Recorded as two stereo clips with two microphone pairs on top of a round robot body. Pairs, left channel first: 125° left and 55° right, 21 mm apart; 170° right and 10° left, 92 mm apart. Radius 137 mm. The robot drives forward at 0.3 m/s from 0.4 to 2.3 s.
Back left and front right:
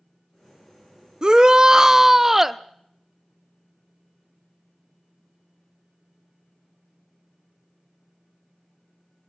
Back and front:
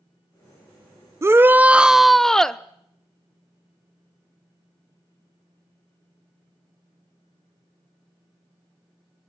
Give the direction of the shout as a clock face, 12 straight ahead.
1 o'clock.